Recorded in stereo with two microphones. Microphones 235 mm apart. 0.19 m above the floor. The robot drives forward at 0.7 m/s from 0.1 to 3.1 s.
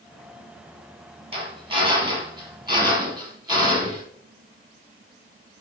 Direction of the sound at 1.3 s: 25° right (ahead or behind).